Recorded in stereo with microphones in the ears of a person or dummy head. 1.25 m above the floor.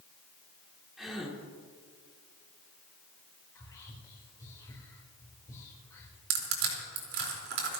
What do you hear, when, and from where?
1.0 s a gasp: 5° right (ahead or behind), 3 m
3.5 s whispering: 15° left (ahead or behind), 4 m
6.3 s crushing: 70° right (ahead or behind), 4.5 m